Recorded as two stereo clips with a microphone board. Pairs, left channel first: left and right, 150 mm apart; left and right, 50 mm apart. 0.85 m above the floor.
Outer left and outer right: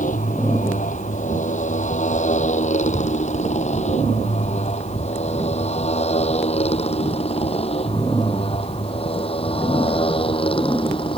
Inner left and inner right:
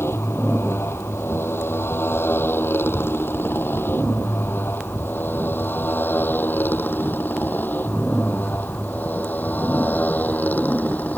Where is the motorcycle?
60° left (ahead or behind); by 11.2 s 35° left (ahead or behind).